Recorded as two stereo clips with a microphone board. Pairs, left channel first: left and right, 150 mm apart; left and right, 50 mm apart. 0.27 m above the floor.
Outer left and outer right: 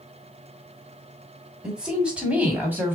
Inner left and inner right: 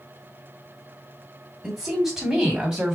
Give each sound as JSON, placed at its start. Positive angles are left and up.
{"t": 1.6, "sound": "a woman speaking", "side_deg": -5, "distance_m": 2.5}